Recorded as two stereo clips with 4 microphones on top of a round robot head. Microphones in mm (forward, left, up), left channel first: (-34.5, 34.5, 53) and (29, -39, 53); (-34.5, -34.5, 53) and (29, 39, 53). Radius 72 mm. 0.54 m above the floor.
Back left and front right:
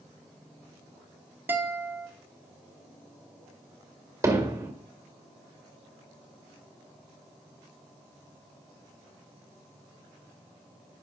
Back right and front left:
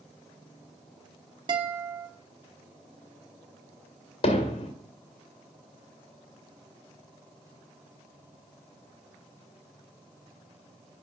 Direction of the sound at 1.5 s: 15° left.